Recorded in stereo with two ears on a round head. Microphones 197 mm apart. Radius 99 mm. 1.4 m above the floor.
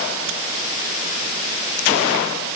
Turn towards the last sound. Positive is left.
No sound to turn to.